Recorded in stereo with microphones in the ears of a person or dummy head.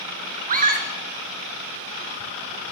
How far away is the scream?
About 1.2 m.